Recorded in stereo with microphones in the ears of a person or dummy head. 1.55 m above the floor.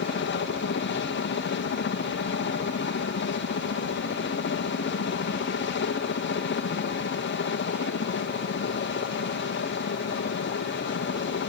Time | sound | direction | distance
0.0 | a helicopter | 50° left (ahead or behind) | ?